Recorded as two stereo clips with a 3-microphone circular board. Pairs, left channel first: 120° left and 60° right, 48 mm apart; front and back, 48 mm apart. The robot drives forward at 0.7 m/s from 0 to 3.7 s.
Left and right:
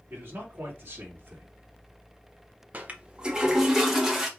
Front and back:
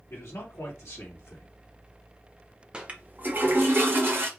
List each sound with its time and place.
0.1 s a man speaking: 15° right, 2.5 m; by 1.5 s 20° right, 1.7 m
2.7 s a toilet flushing: 110° right, 0.8 m; by 4.3 s 140° right, 1.2 m